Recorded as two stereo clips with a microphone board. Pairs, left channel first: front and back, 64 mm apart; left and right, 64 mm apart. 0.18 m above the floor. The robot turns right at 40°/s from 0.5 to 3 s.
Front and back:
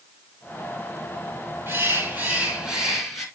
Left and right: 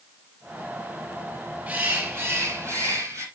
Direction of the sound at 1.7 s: 145° right.